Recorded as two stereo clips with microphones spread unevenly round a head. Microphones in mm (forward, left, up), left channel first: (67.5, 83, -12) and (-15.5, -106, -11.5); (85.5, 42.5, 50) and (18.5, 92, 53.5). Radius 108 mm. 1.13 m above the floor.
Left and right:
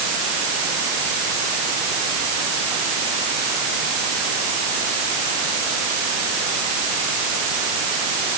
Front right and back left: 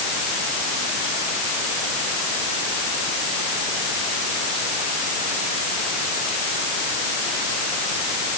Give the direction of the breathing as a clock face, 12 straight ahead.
I don't hear breathing.